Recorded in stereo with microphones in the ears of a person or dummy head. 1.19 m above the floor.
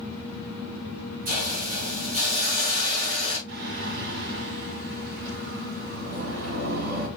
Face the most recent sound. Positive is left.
turn(degrees=-60)  # may be behind; listen again after turning